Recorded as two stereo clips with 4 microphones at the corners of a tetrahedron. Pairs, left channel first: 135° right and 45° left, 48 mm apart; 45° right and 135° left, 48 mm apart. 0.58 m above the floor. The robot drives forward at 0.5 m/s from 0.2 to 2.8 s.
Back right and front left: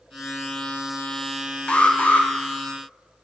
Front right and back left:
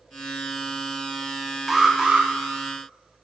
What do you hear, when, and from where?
1.7 s an alarm: 155° right, 0.6 m; by 2.3 s 170° right, 0.7 m